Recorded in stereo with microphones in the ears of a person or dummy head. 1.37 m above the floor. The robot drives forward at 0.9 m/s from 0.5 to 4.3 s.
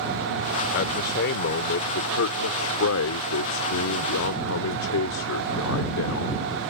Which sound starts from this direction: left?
A man speaking, at 0.7 s.